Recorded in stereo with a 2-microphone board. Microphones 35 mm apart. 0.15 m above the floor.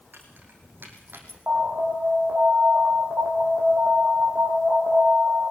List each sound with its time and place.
0.1 s keys jangling: 65° right (ahead or behind), 5 m; by 1.4 s 80° right, 4 m
1.5 s an alarm: 45° right (ahead or behind), 6.5 m